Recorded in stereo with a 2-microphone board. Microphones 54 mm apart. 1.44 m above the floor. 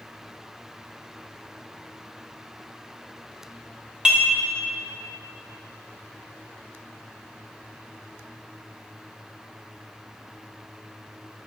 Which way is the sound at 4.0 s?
15° right (ahead or behind).